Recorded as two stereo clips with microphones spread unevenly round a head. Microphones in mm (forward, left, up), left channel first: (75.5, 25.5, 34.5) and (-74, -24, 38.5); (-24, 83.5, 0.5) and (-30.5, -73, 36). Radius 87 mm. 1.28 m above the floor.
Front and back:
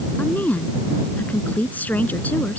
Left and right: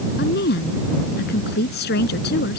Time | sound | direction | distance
0.2 | a woman speaking | 100° left | ?